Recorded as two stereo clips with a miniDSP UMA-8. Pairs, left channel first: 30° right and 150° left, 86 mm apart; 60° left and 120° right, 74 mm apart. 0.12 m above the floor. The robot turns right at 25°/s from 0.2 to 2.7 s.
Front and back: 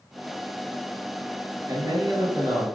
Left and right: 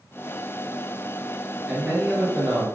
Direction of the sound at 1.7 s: 145° left.